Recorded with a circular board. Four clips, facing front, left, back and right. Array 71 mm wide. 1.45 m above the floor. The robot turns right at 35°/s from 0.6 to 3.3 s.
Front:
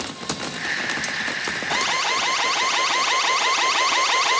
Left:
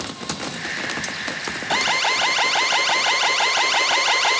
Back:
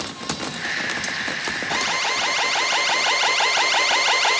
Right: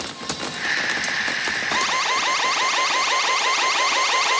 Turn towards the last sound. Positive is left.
turn(degrees=150)